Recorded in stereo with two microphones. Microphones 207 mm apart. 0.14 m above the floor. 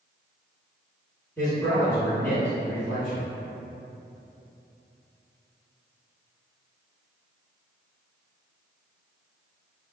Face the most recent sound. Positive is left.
turn(degrees=10)  # may be behind; listen again after turning